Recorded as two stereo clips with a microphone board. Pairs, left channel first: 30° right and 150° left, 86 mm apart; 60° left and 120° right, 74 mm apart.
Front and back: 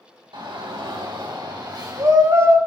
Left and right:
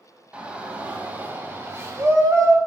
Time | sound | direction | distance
0.3 | a shout | 165° left | 3.5 m